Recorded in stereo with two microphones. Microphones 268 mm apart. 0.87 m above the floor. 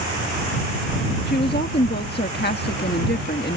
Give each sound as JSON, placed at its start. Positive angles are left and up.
{"t": 1.3, "sound": "a woman speaking", "side_deg": 40}